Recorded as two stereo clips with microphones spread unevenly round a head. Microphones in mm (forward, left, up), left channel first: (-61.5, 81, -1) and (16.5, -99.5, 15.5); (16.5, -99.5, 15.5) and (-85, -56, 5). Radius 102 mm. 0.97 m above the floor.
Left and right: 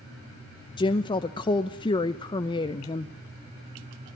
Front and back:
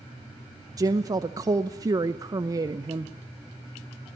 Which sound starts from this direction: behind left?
A woman speaking, at 0.8 s.